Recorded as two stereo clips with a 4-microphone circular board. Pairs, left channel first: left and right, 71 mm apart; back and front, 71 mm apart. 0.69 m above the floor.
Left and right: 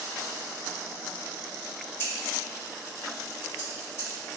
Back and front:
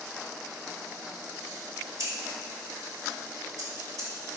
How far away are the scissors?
About 0.9 m.